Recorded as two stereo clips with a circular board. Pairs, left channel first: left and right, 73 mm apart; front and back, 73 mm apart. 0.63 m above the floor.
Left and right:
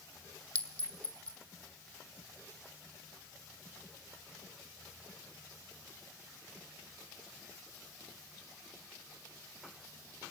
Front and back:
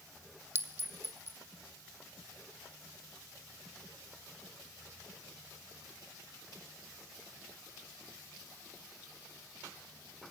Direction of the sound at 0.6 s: 150° left.